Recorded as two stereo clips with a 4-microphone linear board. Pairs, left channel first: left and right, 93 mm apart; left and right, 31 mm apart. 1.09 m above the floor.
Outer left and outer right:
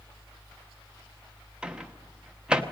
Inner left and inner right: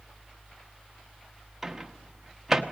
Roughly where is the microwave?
Centre.